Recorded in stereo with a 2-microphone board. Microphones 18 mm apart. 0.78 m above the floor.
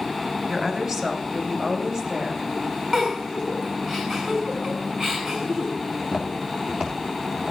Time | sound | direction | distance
0.5 | a woman speaking | 40° right (ahead or behind) | 2.5 m
2.9 | a giggle | 35° right (ahead or behind) | 6.5 m
5.9 | footsteps | 80° right | 5.5 m